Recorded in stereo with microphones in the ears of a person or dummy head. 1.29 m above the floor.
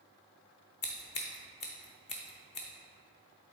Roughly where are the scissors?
Left.